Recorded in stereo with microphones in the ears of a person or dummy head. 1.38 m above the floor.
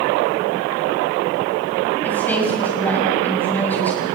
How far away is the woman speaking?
About 7.5 m.